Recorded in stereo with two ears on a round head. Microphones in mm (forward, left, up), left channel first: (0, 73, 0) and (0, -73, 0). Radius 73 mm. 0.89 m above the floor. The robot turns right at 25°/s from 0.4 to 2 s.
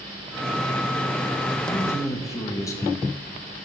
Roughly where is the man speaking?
Centre.